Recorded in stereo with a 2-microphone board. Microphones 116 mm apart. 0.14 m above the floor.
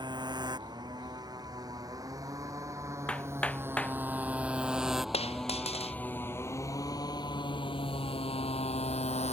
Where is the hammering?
10° left (ahead or behind).